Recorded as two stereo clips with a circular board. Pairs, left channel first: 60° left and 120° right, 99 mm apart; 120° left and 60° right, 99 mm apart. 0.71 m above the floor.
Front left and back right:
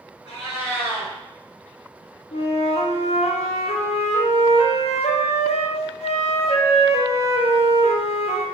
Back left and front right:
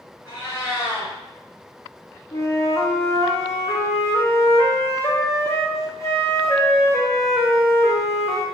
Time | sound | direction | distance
0.2 | a cat meowing | 65° left | 1.5 m
2.3 | a flute | 60° left | 0.5 m